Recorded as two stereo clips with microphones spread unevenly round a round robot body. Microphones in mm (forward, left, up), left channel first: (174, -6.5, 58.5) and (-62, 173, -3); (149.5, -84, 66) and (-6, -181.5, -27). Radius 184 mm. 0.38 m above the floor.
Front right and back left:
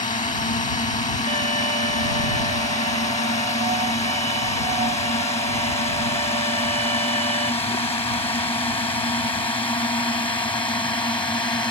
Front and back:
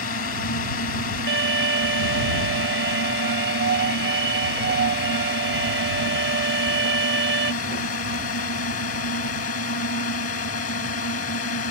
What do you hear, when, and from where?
0.0 s a drone: 30° left; by 11.7 s 40° left
1.3 s an alarm: 140° right